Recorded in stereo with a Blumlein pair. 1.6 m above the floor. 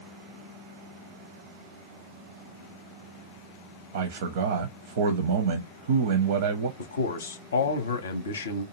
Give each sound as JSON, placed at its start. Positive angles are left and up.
{"t": 3.9, "sound": "a man speaking", "azimuth_deg": -60, "distance_m": 0.6}
{"t": 6.8, "sound": "a man speaking", "azimuth_deg": 65, "distance_m": 0.6}